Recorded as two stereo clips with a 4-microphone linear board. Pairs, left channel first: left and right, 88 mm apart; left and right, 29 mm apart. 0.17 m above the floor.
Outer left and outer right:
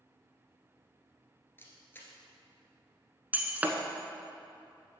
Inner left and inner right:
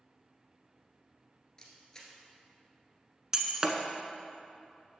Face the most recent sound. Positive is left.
turn(degrees=-20)  # may be behind; listen again after turning